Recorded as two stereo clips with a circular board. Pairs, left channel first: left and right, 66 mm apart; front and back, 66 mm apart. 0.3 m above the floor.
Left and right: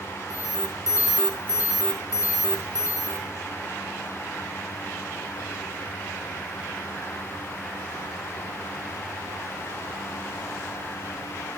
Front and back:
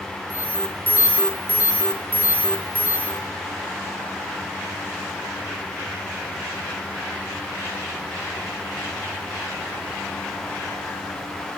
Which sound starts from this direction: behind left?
An alarm, at 0.3 s.